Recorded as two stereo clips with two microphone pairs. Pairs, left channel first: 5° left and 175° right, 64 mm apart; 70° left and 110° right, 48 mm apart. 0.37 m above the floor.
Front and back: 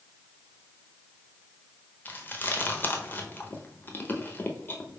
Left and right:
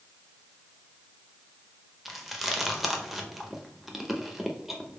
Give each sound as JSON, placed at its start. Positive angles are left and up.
{"t": 2.0, "sound": "chewing", "azimuth_deg": -25, "distance_m": 0.6}